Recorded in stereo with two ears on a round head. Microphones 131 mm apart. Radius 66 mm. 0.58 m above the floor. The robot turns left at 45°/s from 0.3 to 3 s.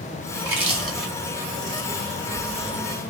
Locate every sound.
0.3 s chewing: 25° right (ahead or behind), 1.1 m; by 3.0 s 55° left (ahead or behind), 1.1 m